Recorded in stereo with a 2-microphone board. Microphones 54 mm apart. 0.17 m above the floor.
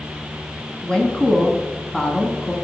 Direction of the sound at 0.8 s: 15° left (ahead or behind).